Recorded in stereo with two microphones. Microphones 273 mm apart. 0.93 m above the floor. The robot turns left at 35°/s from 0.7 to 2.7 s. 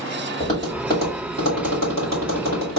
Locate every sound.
0.4 s tapping: 25° left (ahead or behind), 2.5 m; by 2.8 s 75° left (ahead or behind), 2.5 m